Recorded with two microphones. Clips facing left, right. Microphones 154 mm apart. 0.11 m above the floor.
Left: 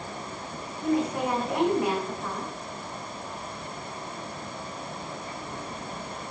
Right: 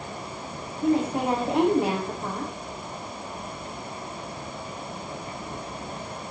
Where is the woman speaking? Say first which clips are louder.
Right 3 dB; 30° right (ahead or behind), 6.5 m.